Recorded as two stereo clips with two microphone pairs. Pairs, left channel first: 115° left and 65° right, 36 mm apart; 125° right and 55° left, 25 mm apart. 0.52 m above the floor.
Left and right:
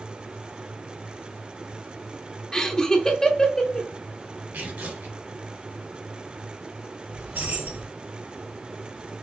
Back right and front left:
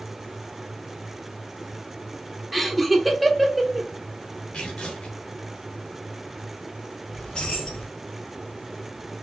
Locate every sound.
2.5 s laughter: 120° left, 0.7 m
4.5 s tearing paper: 90° right, 2.5 m
7.1 s keys jangling: 80° right, 2.5 m